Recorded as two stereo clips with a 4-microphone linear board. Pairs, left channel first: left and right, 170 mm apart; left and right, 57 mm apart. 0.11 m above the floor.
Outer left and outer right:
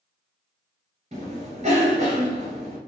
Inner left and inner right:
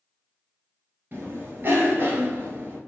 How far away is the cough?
About 1.5 m.